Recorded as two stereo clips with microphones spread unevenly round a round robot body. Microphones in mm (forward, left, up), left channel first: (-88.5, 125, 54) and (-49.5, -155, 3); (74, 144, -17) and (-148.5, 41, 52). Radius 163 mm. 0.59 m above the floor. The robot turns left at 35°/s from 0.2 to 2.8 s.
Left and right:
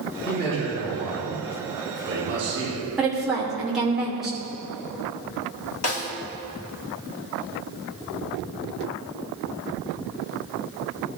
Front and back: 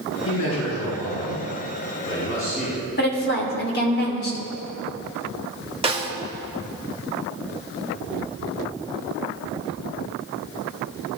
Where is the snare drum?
135° left, 1.7 m.